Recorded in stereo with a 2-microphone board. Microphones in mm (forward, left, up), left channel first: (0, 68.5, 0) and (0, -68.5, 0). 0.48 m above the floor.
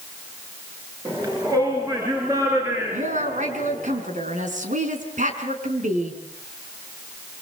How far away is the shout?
About 6.5 m.